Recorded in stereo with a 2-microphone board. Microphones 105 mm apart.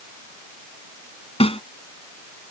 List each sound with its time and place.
1.4 s a snare drum: 65° left (ahead or behind)